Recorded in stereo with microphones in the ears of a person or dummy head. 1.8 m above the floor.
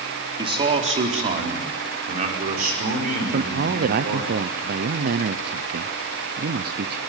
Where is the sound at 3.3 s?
55° right (ahead or behind), 0.9 m.